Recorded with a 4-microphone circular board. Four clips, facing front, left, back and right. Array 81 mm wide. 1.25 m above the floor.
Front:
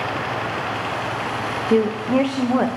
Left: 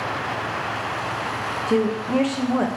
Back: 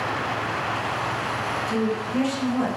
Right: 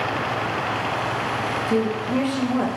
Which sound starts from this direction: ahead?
A woman speaking, at 1.7 s.